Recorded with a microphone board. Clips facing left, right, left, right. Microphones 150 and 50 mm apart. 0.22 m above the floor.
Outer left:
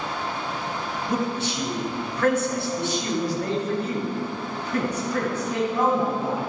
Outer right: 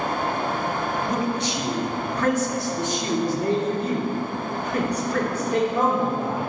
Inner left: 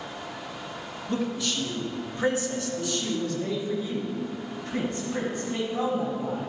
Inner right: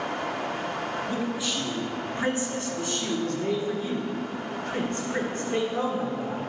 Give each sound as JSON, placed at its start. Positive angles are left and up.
{"t": 1.1, "sound": "a man speaking", "side_deg": -5, "distance_m": 1.4}